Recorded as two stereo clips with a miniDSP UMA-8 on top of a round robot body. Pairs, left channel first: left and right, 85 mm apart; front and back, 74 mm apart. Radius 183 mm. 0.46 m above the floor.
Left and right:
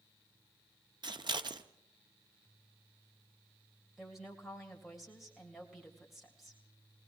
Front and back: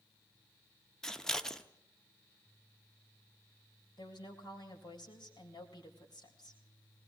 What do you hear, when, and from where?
1.0 s scissors: 80° right, 1.2 m
4.0 s a woman speaking: straight ahead, 3.5 m